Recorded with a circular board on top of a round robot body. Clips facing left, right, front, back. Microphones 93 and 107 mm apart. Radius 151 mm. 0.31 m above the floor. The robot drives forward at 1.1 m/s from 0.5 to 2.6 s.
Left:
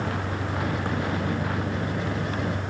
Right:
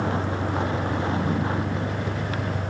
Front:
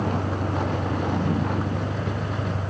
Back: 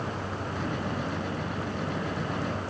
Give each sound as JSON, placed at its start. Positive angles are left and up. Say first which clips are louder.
{"t": 0.0, "sound": "a vehicle", "louder": "right 3 dB, front 7 dB", "azimuth_deg": -30}